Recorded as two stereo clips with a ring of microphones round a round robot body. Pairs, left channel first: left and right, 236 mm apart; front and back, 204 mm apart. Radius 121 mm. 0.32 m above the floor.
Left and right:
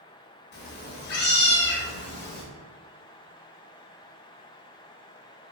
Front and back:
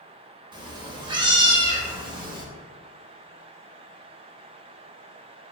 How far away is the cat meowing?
About 0.5 m.